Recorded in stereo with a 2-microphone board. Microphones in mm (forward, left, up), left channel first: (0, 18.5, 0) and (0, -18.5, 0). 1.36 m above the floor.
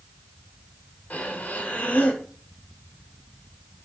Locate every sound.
1.1 s breathing: 40° left (ahead or behind), 1.9 m